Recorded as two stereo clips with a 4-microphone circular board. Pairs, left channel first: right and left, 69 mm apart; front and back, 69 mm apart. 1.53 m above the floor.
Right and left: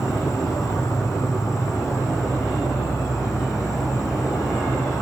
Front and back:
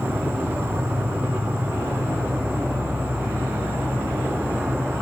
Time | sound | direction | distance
0.0 | an insect | 125° right | 2.5 m